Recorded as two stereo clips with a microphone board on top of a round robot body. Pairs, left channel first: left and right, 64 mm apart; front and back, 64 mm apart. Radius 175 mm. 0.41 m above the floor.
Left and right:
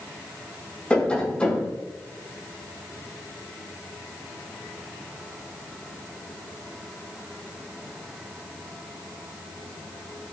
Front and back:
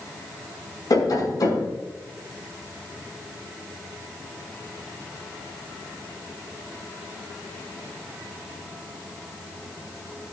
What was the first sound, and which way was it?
Tapping, 20° left.